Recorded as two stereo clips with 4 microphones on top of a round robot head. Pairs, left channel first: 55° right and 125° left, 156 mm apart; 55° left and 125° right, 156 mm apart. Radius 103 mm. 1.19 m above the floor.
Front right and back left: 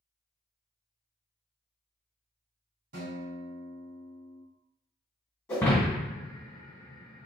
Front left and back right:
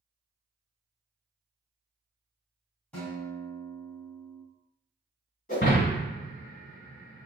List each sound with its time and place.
2.9 s a guitar: 140° left, 1.4 m
5.5 s breaking glass: 15° left, 1.7 m